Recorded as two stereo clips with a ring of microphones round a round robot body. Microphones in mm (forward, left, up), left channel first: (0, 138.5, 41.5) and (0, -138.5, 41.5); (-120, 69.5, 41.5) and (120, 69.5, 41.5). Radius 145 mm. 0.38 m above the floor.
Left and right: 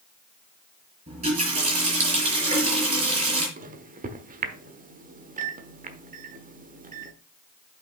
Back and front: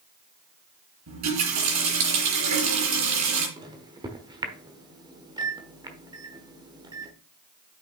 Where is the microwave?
60° right, 1.1 m.